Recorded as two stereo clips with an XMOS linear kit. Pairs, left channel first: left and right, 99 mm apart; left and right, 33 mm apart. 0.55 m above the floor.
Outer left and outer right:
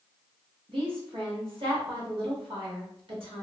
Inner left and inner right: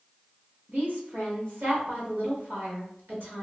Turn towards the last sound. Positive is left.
turn(degrees=-65)  # may be behind; listen again after turning